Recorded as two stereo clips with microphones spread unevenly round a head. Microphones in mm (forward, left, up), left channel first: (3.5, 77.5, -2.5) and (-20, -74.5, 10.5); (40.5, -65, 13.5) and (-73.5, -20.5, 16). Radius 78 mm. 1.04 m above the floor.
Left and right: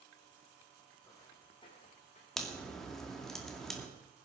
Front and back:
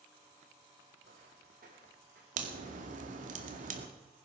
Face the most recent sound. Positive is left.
turn(degrees=165)